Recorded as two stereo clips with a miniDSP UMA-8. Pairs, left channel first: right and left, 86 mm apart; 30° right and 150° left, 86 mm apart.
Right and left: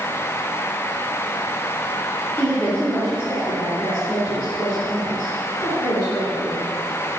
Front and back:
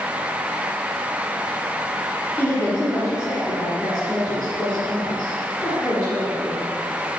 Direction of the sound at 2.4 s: 30° right.